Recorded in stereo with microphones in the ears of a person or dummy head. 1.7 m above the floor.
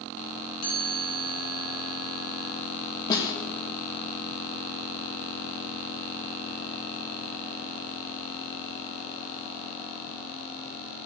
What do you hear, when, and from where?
0.6 s a chime: 50° left (ahead or behind), 3 m
3.1 s a snare drum: 25° left (ahead or behind), 1.7 m